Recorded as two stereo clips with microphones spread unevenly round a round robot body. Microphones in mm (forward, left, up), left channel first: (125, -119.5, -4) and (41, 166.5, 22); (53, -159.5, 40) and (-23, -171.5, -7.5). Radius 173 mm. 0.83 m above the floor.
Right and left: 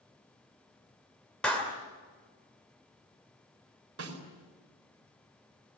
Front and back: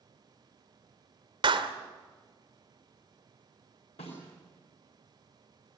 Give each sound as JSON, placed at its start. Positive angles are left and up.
{"t": 1.4, "sound": "a clap", "azimuth_deg": -160, "distance_m": 2.0}
{"t": 4.0, "sound": "a snare drum", "azimuth_deg": 65, "distance_m": 4.5}